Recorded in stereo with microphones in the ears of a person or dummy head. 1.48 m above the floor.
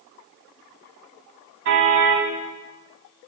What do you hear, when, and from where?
1.6 s a car horn: 65° right (ahead or behind), 5.5 m